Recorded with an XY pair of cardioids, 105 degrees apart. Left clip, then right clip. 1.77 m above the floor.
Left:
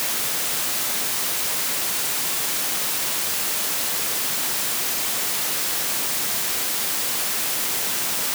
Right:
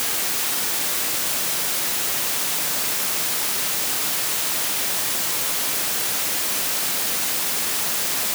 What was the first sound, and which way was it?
Only background noise.